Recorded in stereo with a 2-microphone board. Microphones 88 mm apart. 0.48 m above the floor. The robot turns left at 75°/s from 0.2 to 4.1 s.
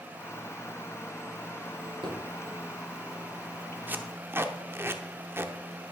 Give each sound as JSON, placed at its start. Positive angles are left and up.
{"t": 1.8, "sound": "a drawer", "side_deg": -85, "distance_m": 4.0}
{"t": 3.9, "sound": "tape being pulled", "side_deg": -20, "distance_m": 0.8}